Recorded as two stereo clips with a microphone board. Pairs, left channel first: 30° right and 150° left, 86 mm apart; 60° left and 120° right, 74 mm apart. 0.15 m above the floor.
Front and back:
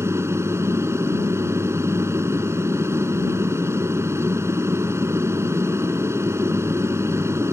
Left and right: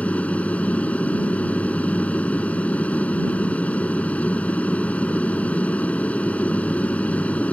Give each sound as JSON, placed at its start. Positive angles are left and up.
{"t": 0.0, "sound": "an aircraft", "azimuth_deg": 120}